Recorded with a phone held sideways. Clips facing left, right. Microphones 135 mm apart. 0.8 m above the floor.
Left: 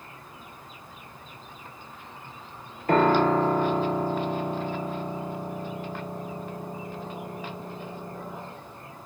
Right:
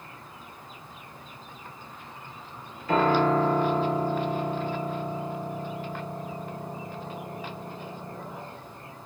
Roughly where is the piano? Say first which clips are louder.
Left 2 dB; left.